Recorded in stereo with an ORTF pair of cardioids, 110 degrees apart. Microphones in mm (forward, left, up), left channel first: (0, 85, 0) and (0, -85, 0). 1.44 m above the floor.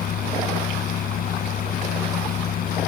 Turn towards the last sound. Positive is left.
turn(degrees=60)